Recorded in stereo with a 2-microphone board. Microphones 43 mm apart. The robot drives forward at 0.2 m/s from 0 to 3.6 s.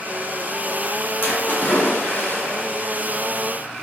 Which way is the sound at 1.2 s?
60° left (ahead or behind).